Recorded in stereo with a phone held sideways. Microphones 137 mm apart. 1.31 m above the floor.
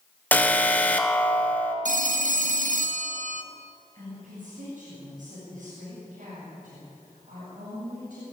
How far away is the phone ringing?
About 1.1 m.